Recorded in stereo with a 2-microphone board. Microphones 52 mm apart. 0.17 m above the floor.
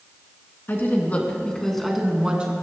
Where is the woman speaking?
40° left (ahead or behind), 1.9 m; by 2.5 s 20° right (ahead or behind), 1.7 m.